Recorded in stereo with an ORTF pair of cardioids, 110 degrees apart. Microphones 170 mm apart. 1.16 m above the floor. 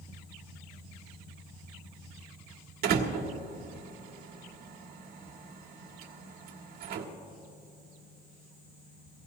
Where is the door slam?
65° right, 1.9 m.